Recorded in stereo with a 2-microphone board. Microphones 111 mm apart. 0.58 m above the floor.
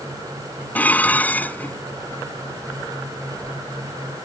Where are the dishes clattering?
15° left (ahead or behind).